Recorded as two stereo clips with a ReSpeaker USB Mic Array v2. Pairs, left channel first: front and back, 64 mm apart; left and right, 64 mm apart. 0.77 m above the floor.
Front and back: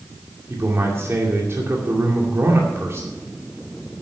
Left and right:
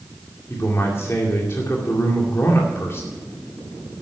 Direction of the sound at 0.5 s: 135° left.